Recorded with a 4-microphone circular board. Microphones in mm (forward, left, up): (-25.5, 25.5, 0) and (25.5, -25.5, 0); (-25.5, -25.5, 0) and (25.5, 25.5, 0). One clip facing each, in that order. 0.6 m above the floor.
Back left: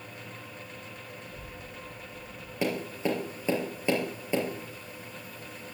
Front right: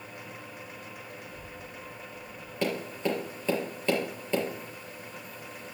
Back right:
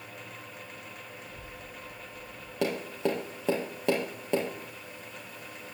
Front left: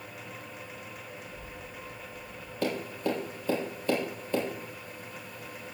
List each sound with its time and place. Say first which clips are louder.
1.2 s a child speaking: even, front left 1 dB; 170° right, 4.5 m; by 2.5 s 155° right, 5.5 m
2.6 s tapping: even, back right 1 dB; 145° right, 4 m